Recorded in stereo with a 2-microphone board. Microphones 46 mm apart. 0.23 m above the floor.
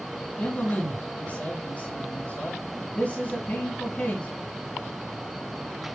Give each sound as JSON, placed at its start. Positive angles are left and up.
{"t": 0.4, "sound": "a man speaking", "side_deg": 35, "distance_m": 2.5}